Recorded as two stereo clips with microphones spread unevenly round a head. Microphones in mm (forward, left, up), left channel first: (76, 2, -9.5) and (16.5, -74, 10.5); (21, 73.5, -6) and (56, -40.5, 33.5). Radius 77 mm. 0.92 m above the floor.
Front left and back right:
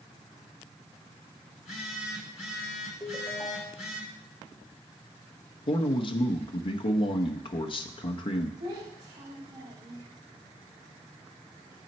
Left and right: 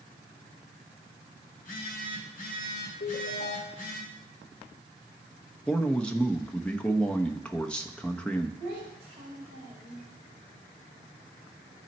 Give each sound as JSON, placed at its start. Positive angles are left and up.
{"t": 1.5, "sound": "a phone buzzing", "azimuth_deg": 100, "distance_m": 3.0}
{"t": 3.0, "sound": "a ringtone", "azimuth_deg": 130, "distance_m": 1.4}
{"t": 5.7, "sound": "a man speaking", "azimuth_deg": 30, "distance_m": 0.7}
{"t": 8.6, "sound": "a child speaking", "azimuth_deg": -160, "distance_m": 2.0}